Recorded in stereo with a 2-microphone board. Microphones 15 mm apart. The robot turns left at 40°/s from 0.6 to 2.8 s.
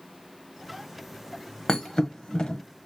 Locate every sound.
1.7 s a thud: 55° left (ahead or behind), 0.9 m; by 2.6 s 80° left, 0.9 m